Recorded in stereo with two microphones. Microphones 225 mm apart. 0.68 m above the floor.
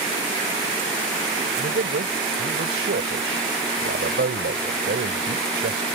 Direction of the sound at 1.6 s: 65° right (ahead or behind).